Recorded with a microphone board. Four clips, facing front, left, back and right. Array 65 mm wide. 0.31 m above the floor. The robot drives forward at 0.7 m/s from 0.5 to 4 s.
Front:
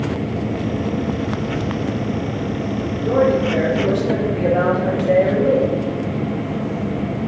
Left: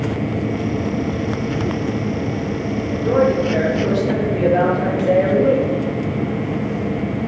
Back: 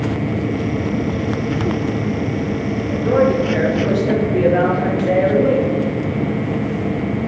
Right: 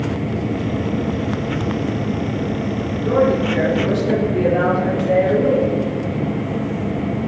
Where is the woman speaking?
175° left, 5.5 m.